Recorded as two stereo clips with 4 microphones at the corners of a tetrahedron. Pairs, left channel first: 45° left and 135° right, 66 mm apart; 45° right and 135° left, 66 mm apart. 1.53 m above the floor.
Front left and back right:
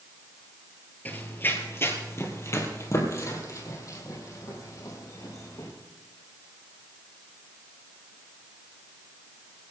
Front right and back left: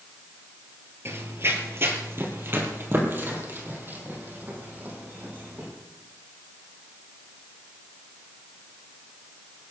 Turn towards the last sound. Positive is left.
turn(degrees=75)